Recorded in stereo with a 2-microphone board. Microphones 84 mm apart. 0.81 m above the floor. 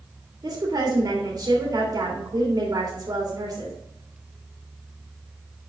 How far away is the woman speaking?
About 2.0 m.